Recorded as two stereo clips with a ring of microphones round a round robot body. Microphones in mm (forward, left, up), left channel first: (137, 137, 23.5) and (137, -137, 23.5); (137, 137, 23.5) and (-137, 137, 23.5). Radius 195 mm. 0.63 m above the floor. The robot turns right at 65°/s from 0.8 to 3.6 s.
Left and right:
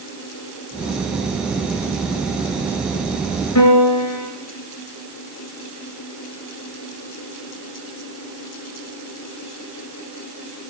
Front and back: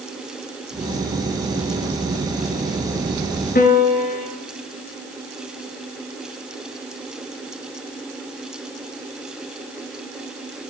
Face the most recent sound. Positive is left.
turn(degrees=60)